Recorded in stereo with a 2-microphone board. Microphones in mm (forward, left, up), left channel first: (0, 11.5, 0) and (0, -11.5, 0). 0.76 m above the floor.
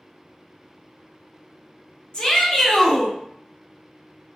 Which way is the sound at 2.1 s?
35° left (ahead or behind).